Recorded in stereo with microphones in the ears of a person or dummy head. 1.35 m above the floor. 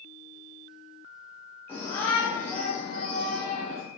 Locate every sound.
1.7 s a shout: 15° left (ahead or behind), 4 m; by 3.8 s centre (ahead or behind), 3 m